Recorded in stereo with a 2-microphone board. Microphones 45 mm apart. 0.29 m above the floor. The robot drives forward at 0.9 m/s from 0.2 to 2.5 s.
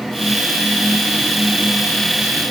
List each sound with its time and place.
Only background noise.